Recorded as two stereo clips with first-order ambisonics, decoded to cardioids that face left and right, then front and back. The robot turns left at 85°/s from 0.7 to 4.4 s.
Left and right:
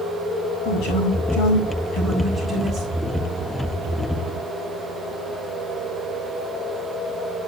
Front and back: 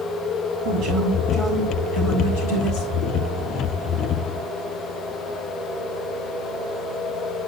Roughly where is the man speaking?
Behind left.